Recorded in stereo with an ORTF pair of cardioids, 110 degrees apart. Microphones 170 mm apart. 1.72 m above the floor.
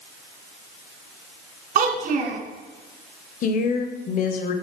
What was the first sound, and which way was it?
A child speaking, 60° right.